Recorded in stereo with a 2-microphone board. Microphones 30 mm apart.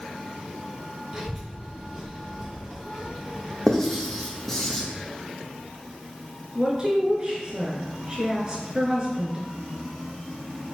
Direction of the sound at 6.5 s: 25° right (ahead or behind).